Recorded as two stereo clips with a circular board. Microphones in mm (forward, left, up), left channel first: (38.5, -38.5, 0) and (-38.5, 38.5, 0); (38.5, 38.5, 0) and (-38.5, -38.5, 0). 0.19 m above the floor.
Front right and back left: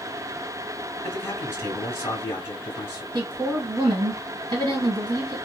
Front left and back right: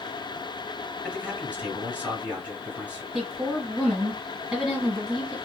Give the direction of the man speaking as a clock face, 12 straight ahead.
2 o'clock.